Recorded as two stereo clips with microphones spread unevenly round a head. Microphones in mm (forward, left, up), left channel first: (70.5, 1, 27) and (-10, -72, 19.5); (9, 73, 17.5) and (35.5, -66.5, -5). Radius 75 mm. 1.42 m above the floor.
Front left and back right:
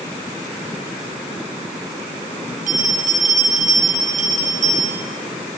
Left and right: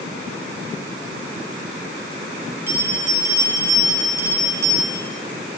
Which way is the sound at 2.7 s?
155° right.